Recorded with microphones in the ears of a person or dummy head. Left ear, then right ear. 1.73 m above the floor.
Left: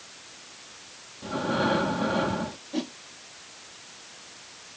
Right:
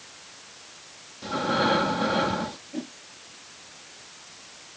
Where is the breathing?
20° right (ahead or behind).